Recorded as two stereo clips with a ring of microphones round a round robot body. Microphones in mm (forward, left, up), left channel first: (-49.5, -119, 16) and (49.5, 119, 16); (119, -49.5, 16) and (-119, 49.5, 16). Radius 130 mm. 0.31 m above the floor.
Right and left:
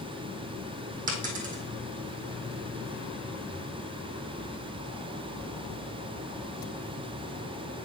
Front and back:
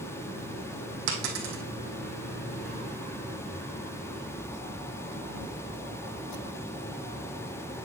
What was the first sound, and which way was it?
A dropped coin, 130° left.